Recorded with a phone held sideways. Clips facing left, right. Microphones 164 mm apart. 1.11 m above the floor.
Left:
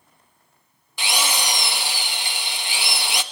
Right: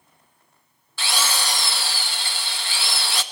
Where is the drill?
15° left (ahead or behind), 1.2 m.